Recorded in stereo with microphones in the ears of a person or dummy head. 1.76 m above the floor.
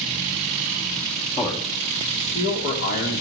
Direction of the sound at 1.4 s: 30° left (ahead or behind).